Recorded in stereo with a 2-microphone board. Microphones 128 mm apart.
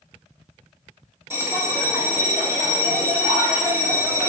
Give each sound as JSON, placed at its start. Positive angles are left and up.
{"t": 1.3, "sound": "a bell", "side_deg": -20, "distance_m": 1.6}